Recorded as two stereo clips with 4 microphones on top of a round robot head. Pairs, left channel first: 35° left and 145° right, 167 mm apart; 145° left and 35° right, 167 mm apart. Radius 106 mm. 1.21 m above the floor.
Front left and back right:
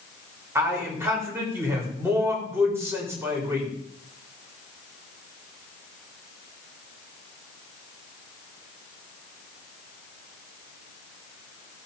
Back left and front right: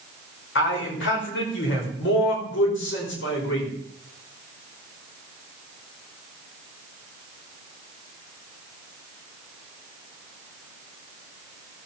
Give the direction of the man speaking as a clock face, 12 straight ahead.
7 o'clock.